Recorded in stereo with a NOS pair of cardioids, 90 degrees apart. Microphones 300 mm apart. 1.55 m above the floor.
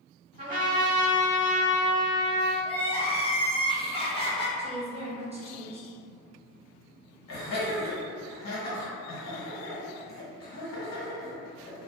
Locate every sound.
0.4 s a trumpet: 25° right, 1.4 m
2.6 s crying: 20° left, 0.8 m
4.6 s a woman speaking: 20° right, 0.9 m
7.3 s laughter: 40° left, 1.7 m